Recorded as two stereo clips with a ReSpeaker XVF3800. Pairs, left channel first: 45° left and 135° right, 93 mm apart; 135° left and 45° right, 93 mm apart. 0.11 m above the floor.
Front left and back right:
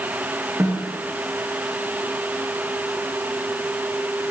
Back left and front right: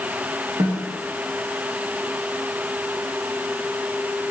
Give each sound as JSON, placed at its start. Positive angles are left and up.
{"t": 0.6, "sound": "a snare drum", "azimuth_deg": -70, "distance_m": 4.5}